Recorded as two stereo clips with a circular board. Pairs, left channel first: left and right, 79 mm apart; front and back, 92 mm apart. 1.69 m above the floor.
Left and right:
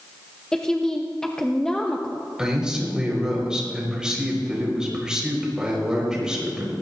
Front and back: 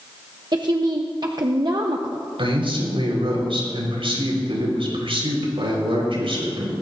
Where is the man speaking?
170° right, 5 m.